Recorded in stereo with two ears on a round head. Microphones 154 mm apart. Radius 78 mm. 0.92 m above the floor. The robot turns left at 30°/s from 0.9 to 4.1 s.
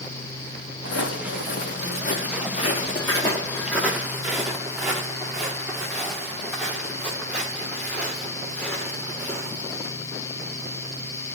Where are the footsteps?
75° left (ahead or behind), 5 m; by 9.8 s 5° left (ahead or behind), 10.5 m.